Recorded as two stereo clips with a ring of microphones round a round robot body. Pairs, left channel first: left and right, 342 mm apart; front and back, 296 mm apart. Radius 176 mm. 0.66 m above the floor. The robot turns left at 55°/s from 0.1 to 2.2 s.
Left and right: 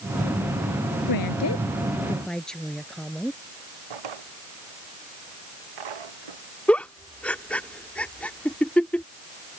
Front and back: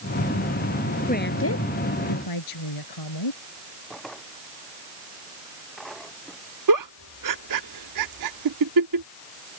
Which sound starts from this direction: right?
A drawer, at 3.9 s.